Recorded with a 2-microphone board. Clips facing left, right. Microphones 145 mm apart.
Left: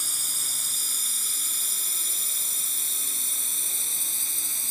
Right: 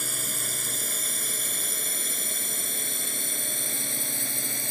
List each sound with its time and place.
0.0 s a drone: 65° right (ahead or behind)